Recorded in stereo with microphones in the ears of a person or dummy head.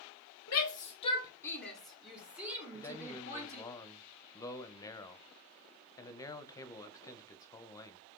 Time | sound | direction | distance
0.5 | a shout | 50° left (ahead or behind) | 0.8 m
2.7 | a man speaking | 15° left (ahead or behind) | 0.7 m